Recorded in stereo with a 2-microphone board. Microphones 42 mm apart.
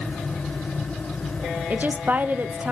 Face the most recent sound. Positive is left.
turn(degrees=-40)  # may be behind; listen again after turning